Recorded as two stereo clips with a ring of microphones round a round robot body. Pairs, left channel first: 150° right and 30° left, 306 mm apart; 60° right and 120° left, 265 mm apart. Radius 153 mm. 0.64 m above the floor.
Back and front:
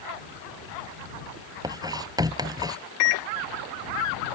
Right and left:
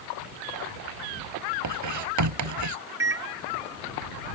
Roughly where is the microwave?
Behind.